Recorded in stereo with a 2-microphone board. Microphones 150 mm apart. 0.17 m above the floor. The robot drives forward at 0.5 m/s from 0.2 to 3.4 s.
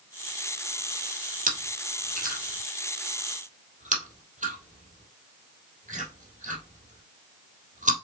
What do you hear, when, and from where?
1.5 s chewing: 70° right (ahead or behind), 3 m; by 7.9 s 55° right (ahead or behind), 3 m